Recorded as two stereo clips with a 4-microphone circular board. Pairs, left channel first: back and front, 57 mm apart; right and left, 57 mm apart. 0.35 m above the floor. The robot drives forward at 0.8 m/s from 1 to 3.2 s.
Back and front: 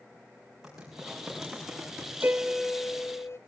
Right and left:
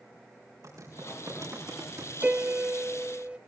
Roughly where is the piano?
Ahead left.